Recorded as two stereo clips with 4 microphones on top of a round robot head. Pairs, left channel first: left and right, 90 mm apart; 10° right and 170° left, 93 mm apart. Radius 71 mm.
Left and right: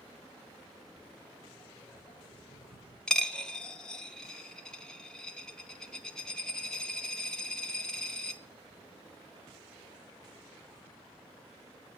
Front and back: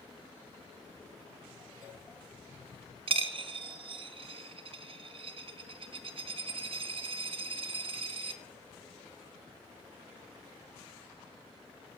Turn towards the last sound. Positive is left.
turn(degrees=170)